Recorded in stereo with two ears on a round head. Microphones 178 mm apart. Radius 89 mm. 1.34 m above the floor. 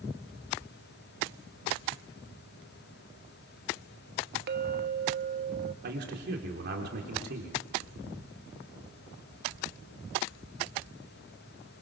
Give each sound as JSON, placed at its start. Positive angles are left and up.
{"t": 4.5, "sound": "a clink", "side_deg": -55, "distance_m": 1.1}
{"t": 5.8, "sound": "a man speaking", "side_deg": -55, "distance_m": 3.5}